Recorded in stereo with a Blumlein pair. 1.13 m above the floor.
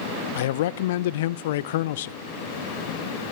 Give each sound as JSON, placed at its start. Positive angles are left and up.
{"t": 0.3, "sound": "a man speaking", "azimuth_deg": 55, "distance_m": 0.5}